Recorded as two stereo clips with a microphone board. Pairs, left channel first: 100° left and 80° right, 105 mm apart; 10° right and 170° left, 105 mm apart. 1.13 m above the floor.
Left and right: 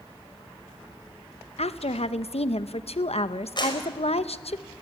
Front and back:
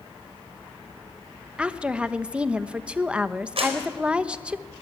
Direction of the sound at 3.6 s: 145° left.